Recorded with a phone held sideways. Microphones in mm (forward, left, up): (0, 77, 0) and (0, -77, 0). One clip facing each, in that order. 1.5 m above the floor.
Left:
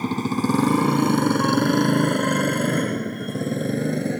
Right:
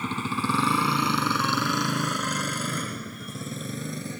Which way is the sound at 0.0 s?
40° left (ahead or behind).